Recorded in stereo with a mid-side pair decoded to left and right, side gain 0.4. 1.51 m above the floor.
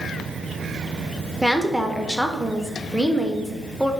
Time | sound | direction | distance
1.4 | a woman speaking | straight ahead | 0.7 m